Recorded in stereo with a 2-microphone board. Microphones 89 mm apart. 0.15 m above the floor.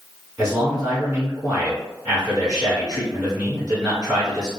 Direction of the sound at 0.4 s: 10° right (ahead or behind).